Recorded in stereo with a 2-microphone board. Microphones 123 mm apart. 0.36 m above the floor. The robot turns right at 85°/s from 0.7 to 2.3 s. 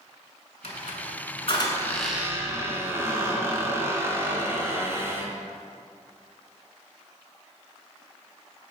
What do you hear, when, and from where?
0.6 s a squeak: 65° left, 1.2 m; by 5.3 s 160° right, 1.2 m